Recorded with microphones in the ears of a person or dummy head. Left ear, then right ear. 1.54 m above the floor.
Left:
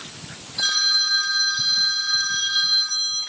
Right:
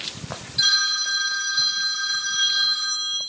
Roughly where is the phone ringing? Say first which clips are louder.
Left 1 dB; centre.